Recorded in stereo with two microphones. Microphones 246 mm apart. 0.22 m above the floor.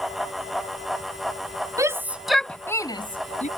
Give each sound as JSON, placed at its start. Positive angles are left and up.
{"t": 1.8, "sound": "a shout", "side_deg": -15}